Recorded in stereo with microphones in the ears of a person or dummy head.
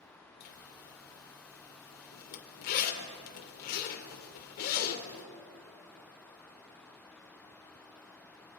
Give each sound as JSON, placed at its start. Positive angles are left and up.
{"t": 0.4, "sound": "a zipper", "side_deg": 50, "distance_m": 2.5}